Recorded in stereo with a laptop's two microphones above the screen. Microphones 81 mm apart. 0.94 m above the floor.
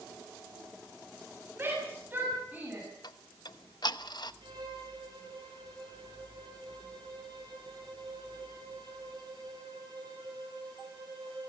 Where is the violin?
65° right (ahead or behind), 8.5 m.